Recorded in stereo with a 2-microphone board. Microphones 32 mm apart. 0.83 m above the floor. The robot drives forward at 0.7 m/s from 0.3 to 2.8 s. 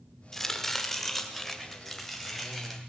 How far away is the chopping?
About 1.2 m.